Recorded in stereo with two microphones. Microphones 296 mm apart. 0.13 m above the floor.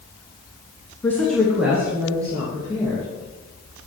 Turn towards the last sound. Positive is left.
turn(degrees=-15)  # may be behind; listen again after turning